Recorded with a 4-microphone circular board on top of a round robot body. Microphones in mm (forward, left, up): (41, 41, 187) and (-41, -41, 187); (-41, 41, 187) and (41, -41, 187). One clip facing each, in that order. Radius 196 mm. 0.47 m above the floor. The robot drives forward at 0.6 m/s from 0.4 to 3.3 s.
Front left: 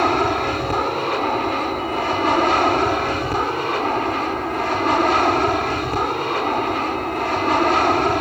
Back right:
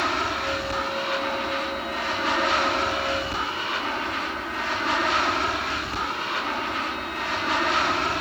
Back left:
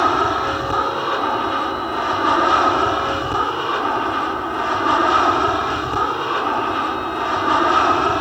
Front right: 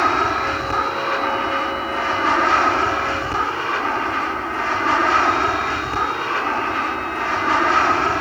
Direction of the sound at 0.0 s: 60° left.